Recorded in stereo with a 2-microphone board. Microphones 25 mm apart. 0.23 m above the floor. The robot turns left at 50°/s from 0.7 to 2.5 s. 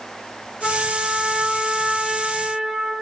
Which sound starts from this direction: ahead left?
A trumpet, at 0.6 s.